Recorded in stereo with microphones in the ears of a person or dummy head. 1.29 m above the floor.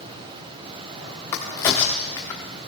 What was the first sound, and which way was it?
A crack, 15° left (ahead or behind).